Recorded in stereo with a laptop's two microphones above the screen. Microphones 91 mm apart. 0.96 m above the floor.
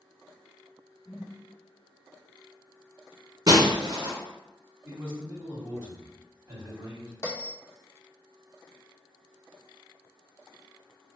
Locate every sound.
1.1 s a whoosh: 15° left (ahead or behind), 1.0 m
3.5 s breaking glass: 50° right (ahead or behind), 1.3 m
4.8 s a man speaking: 25° right (ahead or behind), 1.8 m
7.2 s a bell: 30° left (ahead or behind), 0.7 m